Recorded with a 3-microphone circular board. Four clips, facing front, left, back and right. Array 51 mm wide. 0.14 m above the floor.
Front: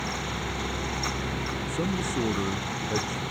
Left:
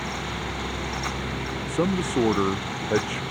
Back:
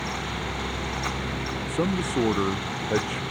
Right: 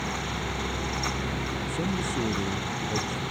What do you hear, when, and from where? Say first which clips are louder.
1.7 s a man speaking: left 8 dB, back 5 dB; 115° left